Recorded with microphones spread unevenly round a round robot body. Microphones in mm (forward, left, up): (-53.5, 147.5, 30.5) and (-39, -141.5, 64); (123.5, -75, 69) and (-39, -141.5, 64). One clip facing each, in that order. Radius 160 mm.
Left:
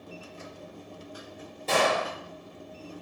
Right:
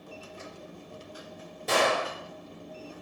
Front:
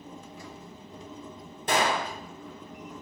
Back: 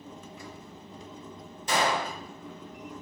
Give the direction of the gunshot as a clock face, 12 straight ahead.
12 o'clock.